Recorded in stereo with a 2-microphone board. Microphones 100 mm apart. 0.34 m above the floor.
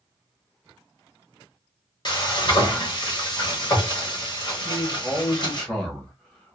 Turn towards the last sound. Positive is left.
turn(degrees=10)  # may be behind; listen again after turning